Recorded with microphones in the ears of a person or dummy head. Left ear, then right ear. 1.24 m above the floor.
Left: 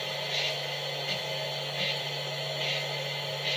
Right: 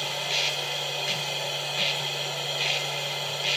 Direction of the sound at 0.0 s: 80° right.